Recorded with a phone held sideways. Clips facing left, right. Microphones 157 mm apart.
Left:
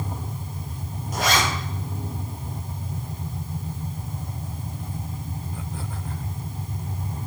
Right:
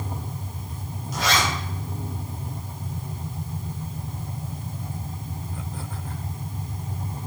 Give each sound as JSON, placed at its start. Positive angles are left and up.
{"t": 1.1, "sound": "a zipper", "side_deg": 50, "distance_m": 3.5}